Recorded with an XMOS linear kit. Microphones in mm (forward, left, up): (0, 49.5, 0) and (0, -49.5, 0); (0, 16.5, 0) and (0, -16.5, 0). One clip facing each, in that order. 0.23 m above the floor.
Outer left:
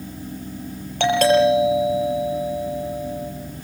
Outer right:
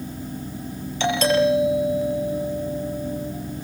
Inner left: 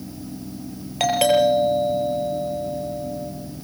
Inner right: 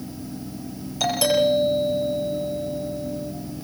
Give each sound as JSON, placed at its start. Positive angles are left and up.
{"t": 1.0, "sound": "a doorbell", "side_deg": 55, "distance_m": 6.0}